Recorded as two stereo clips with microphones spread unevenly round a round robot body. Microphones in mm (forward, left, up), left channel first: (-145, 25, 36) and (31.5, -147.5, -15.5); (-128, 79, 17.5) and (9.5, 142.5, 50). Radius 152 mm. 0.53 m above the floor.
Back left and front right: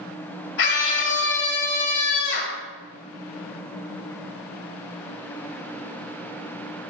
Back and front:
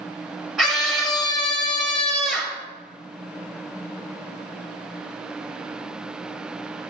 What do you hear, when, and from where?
0.6 s a scream: 120° left, 2.5 m